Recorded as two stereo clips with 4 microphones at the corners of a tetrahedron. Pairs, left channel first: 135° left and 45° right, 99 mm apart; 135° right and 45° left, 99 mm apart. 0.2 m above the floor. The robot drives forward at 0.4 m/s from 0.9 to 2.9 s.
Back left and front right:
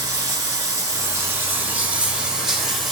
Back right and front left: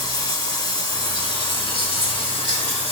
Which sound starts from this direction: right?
Running water, at 0.0 s.